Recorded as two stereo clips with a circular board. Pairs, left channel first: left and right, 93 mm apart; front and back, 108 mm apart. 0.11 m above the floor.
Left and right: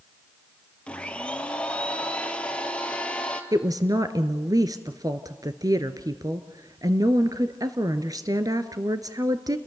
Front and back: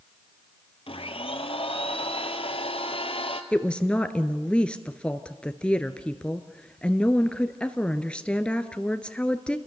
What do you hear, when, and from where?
0.9 s a blender: 15° left, 1.6 m
3.5 s a woman speaking: 75° right, 1.4 m